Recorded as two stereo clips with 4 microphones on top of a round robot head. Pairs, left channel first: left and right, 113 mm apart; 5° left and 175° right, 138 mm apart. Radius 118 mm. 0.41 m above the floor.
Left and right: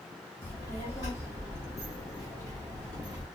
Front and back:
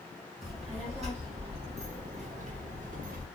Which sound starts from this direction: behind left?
A child speaking, at 0.4 s.